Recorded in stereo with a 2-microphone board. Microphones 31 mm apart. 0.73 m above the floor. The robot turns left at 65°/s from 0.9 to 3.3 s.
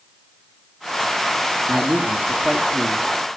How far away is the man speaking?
About 1.6 m.